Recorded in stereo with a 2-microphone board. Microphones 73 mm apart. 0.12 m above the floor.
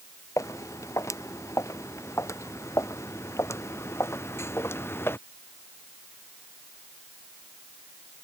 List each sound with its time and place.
0.4 s footsteps: 45° left (ahead or behind); by 5.2 s 35° left (ahead or behind)